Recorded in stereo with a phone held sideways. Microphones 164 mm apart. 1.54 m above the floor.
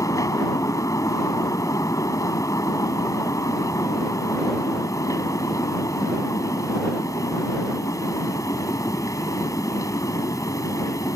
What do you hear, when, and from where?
0.0 s a fan: 20° left (ahead or behind)